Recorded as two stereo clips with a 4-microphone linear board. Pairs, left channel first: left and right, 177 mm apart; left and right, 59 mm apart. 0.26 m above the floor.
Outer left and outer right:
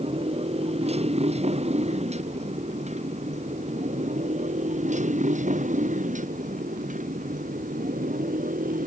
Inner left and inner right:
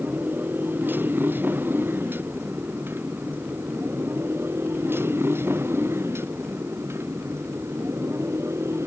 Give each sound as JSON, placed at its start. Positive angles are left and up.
{"t": 0.0, "sound": "a motorcycle", "side_deg": -40}